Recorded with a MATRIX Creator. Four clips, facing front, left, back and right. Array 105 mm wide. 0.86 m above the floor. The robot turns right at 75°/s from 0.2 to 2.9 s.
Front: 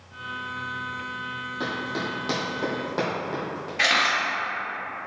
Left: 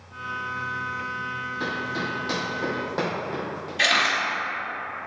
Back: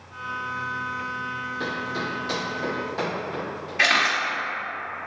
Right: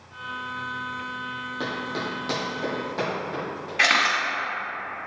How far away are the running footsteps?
About 1.8 m.